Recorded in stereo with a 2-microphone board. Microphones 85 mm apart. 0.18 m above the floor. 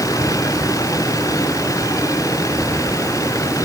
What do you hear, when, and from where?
0.0 s a vehicle: 45° left (ahead or behind); by 3.6 s 40° left (ahead or behind)